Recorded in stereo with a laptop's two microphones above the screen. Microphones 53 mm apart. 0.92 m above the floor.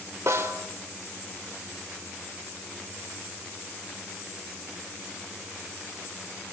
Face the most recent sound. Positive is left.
turn(degrees=-65)  # may be behind; listen again after turning